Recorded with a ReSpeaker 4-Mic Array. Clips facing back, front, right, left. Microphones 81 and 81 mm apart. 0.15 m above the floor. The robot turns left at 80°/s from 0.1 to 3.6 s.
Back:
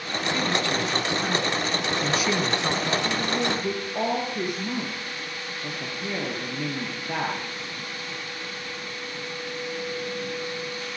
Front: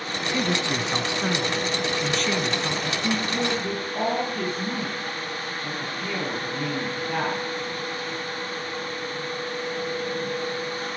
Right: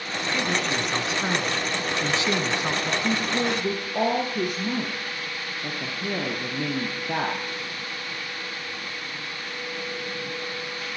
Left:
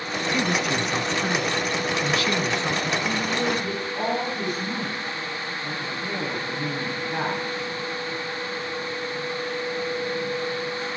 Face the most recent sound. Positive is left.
turn(degrees=-105)